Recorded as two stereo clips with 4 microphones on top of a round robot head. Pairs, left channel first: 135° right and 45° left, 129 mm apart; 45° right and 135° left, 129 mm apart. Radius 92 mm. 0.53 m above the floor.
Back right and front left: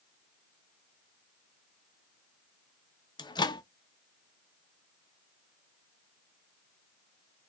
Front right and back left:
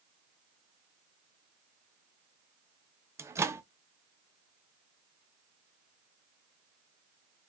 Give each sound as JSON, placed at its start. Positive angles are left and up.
{"t": 3.2, "sound": "a microwave", "azimuth_deg": -165, "distance_m": 0.7}